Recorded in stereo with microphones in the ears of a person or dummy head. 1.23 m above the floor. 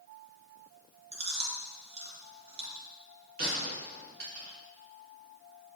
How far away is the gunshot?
About 2.5 m.